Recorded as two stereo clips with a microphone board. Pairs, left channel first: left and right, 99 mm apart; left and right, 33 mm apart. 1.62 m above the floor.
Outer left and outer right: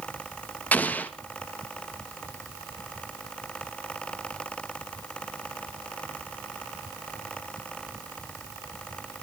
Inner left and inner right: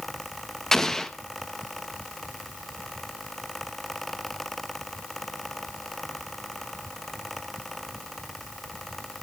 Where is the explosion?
15° left (ahead or behind), 1.5 m.